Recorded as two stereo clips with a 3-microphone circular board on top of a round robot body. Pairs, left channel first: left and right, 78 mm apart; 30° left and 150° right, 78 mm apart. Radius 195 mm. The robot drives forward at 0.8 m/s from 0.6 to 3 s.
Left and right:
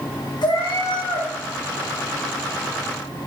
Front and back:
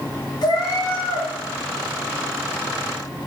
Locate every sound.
0.4 s a cat meowing: 65° left, 4 m; by 1.3 s 75° left, 3.5 m